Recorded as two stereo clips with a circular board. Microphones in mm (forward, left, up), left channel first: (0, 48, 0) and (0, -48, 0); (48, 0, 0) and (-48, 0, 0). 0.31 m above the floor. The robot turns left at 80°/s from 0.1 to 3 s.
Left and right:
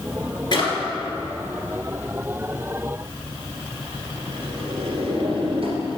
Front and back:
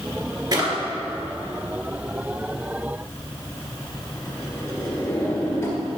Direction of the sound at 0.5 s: 130° left.